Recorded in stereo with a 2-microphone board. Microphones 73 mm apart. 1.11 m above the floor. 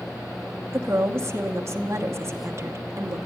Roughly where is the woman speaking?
Right.